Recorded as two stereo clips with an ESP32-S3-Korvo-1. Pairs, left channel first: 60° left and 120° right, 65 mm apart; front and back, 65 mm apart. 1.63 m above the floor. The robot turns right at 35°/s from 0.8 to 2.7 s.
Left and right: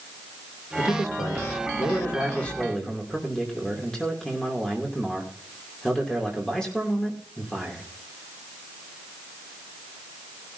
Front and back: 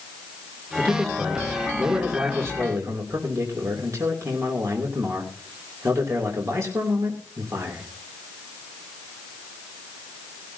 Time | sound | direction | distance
0.8 | a man speaking | 75° left | 3 m